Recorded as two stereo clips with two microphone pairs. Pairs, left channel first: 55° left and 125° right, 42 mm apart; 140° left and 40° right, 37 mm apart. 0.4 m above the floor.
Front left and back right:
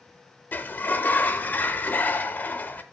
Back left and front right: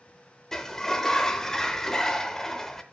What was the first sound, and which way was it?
A sliding door, 65° left.